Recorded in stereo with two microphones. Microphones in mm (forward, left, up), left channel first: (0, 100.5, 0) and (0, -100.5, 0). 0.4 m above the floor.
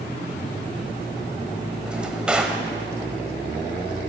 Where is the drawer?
5° right (ahead or behind), 1.1 m.